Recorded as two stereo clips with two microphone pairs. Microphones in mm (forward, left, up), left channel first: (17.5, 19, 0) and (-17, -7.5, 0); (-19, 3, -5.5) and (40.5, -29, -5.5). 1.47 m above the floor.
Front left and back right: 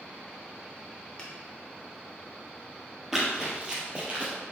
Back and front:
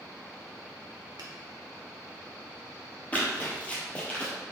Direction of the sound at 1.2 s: 35° right.